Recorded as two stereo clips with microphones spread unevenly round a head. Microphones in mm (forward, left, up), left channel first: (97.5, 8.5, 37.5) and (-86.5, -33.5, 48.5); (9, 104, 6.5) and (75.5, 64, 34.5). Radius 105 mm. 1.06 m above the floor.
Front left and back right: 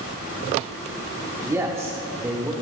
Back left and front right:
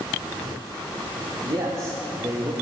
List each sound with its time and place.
1.4 s a man speaking: 95° right, 1.3 m; by 2.5 s 90° right, 2 m